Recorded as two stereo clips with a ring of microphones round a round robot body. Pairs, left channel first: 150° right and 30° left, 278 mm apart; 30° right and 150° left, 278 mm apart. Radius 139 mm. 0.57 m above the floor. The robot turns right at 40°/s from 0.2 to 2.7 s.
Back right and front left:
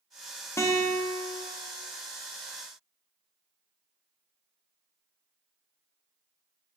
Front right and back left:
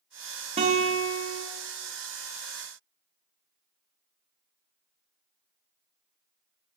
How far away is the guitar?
About 0.6 m.